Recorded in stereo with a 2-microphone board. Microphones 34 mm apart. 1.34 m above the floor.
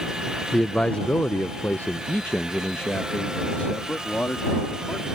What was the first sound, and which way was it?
A man speaking, 20° left (ahead or behind).